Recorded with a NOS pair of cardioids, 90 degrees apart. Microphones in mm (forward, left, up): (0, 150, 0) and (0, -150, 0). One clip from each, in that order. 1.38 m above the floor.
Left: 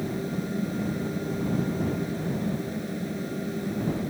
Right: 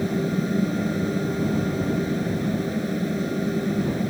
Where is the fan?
45° right.